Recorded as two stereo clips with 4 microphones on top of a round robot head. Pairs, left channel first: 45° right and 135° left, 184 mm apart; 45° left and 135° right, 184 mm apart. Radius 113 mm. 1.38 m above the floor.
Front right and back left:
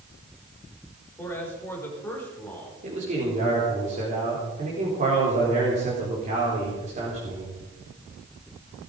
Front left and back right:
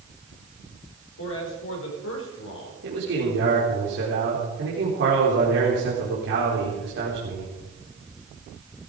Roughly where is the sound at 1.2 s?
Ahead left.